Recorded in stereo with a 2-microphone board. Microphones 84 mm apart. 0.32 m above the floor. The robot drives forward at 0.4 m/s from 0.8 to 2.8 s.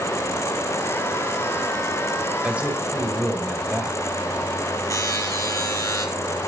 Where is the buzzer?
40° left (ahead or behind), 4 m.